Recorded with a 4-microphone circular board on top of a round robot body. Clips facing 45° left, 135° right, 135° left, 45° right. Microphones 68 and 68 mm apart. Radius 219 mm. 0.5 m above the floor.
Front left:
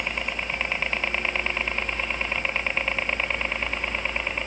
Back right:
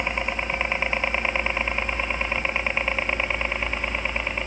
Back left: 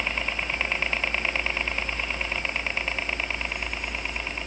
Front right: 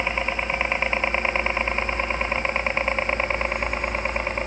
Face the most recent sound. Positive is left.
turn(degrees=-55)